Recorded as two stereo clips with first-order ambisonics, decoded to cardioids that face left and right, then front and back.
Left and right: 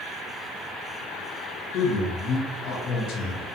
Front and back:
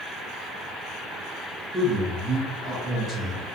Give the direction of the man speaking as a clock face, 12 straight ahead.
8 o'clock.